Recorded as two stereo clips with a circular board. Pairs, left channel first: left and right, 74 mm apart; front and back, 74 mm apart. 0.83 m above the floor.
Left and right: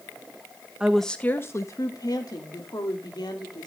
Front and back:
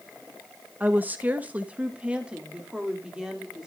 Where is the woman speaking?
155° right, 0.7 m; by 3.7 s 100° left, 3 m.